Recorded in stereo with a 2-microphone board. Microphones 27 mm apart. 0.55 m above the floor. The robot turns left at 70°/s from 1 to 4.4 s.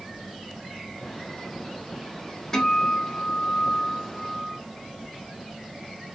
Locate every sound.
2.5 s a guitar: 20° left (ahead or behind), 0.9 m; by 4.6 s 10° right (ahead or behind), 0.9 m